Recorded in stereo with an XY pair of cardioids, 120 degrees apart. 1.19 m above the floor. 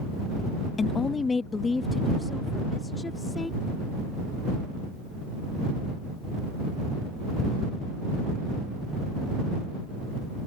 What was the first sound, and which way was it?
A woman speaking, 35° left.